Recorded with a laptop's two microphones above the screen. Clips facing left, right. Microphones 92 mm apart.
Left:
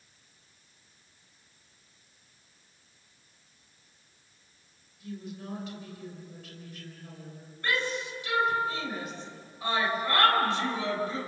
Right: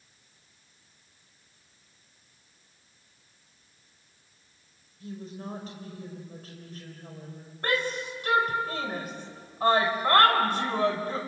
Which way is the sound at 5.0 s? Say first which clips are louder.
Right 1 dB; 35° right (ahead or behind).